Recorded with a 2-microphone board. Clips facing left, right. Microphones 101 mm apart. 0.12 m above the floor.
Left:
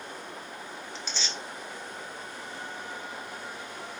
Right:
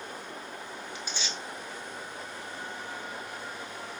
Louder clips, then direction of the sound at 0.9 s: Left 1 dB; 10° right (ahead or behind).